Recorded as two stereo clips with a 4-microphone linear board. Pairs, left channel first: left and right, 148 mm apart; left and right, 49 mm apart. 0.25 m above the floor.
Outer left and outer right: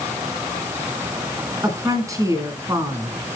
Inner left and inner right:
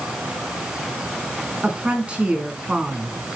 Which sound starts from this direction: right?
A woman speaking, at 1.6 s.